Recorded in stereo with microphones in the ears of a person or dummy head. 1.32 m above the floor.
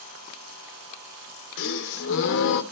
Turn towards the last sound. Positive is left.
turn(degrees=70)  # may be behind; listen again after turning